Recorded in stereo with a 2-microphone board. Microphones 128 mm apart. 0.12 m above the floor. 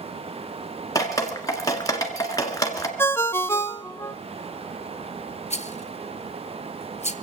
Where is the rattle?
60° left (ahead or behind), 0.6 m.